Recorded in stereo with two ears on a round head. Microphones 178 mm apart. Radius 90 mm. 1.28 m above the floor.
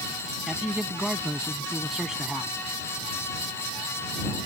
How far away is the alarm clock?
I don't hear an alarm clock.